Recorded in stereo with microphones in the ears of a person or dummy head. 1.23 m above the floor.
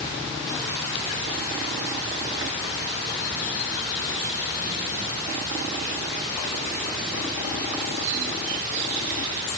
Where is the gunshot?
I don't hear a gunshot.